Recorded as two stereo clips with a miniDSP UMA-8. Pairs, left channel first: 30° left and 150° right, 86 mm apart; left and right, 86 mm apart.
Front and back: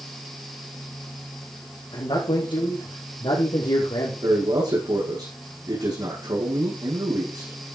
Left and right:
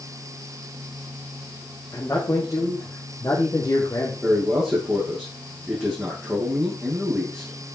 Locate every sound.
1.9 s a man speaking: 40° left, 4.5 m; by 4.1 s 45° left, 3.5 m
4.2 s a man speaking: 170° right, 5.5 m